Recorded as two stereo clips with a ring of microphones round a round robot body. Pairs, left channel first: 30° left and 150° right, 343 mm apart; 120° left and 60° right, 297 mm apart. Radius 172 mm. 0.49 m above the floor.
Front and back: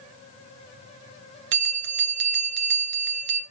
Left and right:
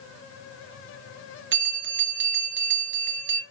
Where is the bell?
120° right, 1.9 m.